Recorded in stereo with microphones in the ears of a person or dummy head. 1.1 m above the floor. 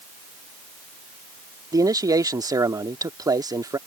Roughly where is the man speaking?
Right.